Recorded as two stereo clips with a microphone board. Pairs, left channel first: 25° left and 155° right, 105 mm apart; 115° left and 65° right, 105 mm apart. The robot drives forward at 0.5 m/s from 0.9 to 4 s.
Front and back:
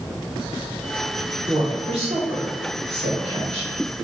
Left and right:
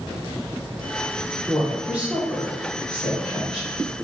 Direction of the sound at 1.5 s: 145° right.